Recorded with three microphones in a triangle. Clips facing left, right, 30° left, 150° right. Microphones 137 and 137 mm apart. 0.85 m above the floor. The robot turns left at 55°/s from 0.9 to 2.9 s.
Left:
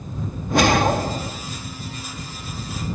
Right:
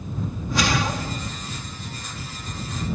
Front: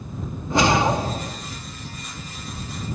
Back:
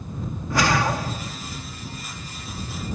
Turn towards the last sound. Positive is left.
turn(degrees=-20)